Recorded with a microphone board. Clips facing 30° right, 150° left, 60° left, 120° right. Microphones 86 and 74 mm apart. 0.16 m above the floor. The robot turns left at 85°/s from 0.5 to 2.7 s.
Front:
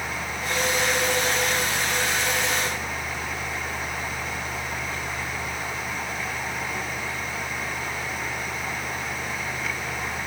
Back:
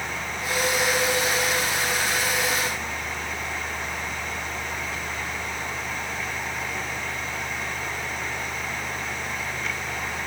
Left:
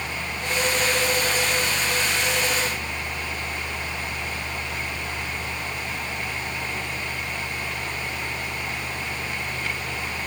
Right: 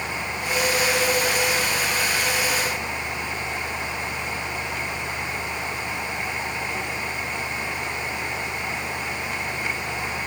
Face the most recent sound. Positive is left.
No sound to turn to.